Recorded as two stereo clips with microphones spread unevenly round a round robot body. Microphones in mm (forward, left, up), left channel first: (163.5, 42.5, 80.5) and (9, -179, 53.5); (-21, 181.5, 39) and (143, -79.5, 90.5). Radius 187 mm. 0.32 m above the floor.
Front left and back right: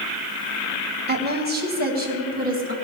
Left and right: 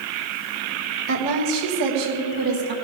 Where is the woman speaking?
85° right, 2.5 m; by 2.7 s 70° right, 3.5 m.